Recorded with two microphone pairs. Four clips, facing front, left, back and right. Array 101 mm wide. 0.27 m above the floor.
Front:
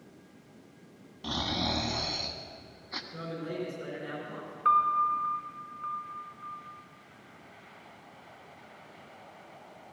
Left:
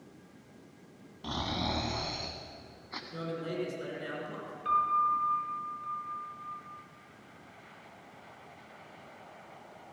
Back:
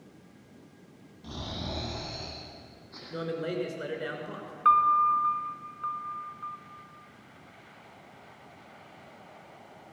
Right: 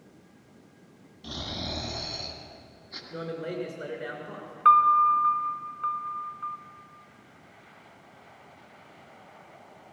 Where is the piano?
100° right, 0.8 m.